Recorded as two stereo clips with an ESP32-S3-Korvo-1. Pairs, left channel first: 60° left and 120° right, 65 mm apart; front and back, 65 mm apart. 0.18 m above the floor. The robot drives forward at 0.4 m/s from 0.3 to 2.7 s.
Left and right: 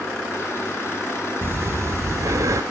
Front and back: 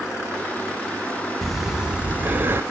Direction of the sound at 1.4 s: 85° right.